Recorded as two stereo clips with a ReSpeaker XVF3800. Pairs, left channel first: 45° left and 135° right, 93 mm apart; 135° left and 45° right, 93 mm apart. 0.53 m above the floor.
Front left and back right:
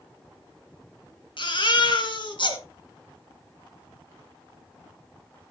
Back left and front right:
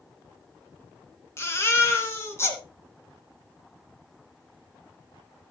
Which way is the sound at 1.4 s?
75° left.